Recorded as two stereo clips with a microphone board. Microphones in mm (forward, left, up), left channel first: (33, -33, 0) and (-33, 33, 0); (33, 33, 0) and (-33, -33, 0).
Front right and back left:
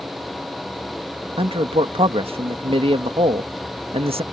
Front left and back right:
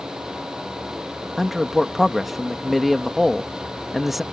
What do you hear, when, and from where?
1.4 s a man speaking: 135° left